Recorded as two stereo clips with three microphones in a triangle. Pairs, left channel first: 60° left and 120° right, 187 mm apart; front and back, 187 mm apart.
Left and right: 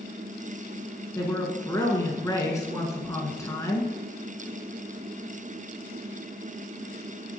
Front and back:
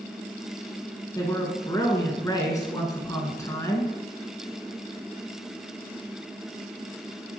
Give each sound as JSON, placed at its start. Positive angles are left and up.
{"t": 1.1, "sound": "a woman speaking", "azimuth_deg": 25, "distance_m": 1.4}